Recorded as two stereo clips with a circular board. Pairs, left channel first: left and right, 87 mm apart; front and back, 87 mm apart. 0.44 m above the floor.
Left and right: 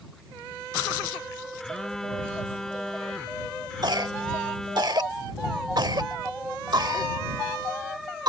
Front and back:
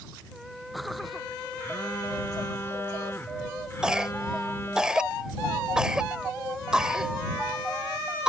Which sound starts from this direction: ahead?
A phone buzzing, at 1.6 s.